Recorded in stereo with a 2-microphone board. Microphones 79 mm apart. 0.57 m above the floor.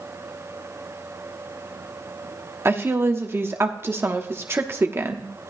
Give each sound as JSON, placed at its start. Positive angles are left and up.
{"t": 2.6, "sound": "a woman speaking", "side_deg": -30, "distance_m": 0.9}